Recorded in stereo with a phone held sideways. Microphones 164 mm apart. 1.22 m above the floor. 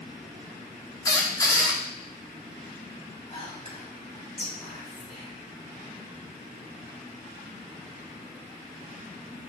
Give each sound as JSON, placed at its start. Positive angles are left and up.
{"t": 1.1, "sound": "a squeak", "side_deg": 20, "distance_m": 1.0}
{"t": 3.3, "sound": "whispering", "side_deg": 40, "distance_m": 3.0}